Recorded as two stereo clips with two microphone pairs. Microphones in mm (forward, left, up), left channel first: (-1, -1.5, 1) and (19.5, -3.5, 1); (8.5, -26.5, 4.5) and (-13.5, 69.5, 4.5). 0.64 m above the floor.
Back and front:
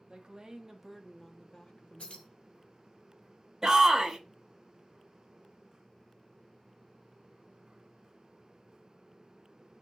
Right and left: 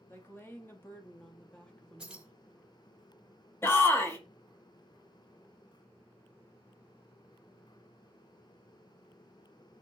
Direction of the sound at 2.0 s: Straight behind.